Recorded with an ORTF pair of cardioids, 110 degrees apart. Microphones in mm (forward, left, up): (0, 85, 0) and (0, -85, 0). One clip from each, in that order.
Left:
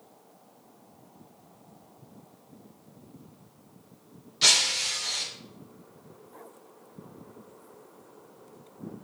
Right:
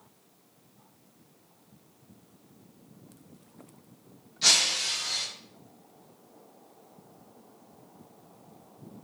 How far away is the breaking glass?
About 2.5 m.